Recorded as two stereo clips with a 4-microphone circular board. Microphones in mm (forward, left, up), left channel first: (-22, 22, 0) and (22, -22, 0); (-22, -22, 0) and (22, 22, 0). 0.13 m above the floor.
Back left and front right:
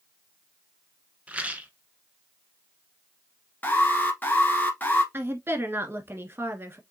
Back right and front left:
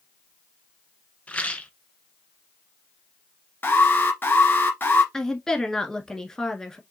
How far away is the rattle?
About 1.0 m.